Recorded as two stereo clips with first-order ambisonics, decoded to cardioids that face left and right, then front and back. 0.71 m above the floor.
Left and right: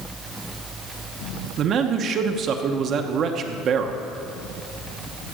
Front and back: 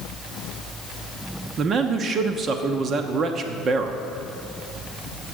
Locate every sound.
1.6 s a man speaking: 130° right, 0.9 m